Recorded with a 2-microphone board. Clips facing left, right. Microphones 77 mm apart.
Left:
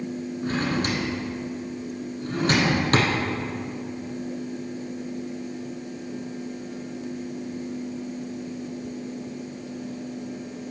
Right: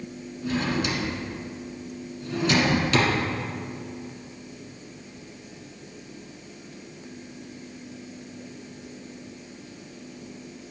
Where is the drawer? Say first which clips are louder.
Even; 45° left (ahead or behind), 1.3 m.